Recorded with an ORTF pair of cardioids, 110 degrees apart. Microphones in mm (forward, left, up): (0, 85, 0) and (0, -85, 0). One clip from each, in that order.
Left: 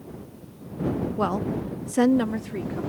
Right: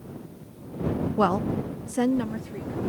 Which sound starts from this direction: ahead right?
A woman speaking, at 1.2 s.